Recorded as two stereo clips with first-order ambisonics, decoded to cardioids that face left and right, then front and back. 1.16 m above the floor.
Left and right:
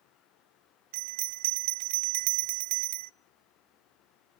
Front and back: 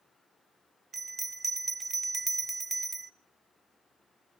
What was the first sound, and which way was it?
A bell, 95° right.